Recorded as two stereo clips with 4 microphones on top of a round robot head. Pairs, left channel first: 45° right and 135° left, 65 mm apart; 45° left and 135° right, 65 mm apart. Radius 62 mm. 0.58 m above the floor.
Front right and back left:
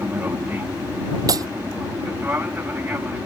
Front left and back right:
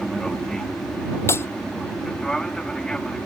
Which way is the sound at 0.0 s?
120° left.